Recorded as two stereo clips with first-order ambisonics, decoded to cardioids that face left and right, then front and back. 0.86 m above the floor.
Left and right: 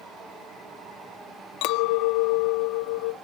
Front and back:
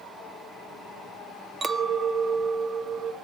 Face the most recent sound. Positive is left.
turn(degrees=115)